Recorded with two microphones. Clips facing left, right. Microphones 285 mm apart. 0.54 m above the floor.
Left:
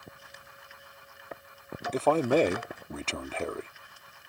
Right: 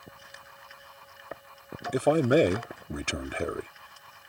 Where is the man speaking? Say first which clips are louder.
Right 2 dB; 15° right (ahead or behind).